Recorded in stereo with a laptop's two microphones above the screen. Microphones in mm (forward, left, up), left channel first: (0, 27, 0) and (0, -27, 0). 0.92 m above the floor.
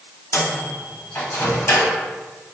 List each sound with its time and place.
0.3 s a microwave: 55° left (ahead or behind), 0.8 m